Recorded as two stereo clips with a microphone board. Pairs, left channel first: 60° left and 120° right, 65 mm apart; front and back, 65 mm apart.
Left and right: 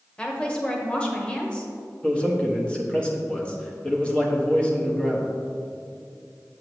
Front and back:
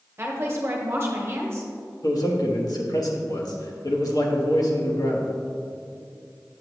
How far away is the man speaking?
About 1.2 m.